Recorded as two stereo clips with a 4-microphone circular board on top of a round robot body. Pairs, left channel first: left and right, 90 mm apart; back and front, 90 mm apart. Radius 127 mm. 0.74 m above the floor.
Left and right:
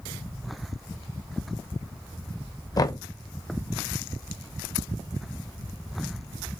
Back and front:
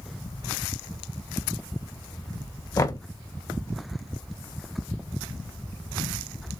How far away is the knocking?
About 0.7 m.